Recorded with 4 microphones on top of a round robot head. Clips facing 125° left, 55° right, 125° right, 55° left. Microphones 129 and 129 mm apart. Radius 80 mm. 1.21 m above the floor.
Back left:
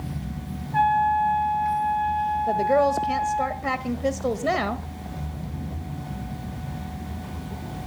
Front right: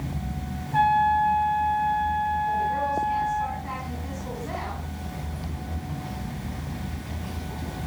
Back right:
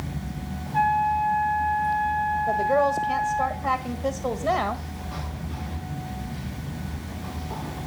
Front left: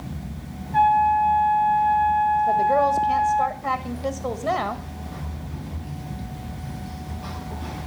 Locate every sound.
0.7 s a trumpet: 20° left, 7 m
2.5 s a woman speaking: 145° left, 1.4 m